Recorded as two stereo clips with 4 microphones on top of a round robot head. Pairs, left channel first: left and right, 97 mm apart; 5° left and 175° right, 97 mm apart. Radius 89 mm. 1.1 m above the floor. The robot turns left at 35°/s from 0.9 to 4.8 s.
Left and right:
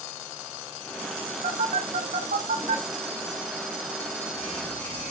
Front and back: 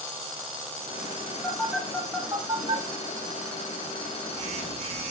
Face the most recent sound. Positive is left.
turn(degrees=165)